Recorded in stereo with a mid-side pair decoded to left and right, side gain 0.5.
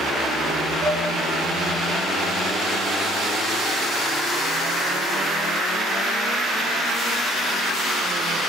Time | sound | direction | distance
0.8 | dishes clattering | 65° right | 5 m